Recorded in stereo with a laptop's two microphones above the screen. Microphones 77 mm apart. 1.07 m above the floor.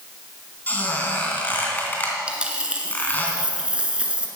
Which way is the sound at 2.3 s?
15° right (ahead or behind).